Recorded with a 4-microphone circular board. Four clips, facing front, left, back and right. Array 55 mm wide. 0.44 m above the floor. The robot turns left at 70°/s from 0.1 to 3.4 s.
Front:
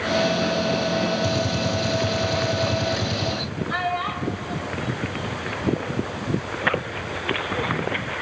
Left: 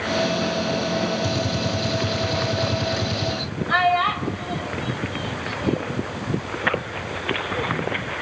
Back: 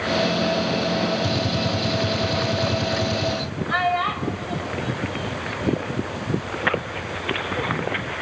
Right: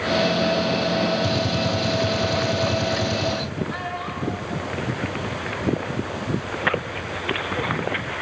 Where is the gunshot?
145° right, 0.8 m; by 3.5 s 60° left, 0.8 m.